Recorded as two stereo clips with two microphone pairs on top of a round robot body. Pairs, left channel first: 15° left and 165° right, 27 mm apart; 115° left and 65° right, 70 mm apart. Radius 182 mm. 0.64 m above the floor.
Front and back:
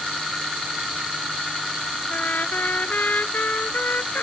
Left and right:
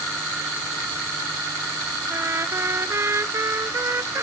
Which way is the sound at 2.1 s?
10° right.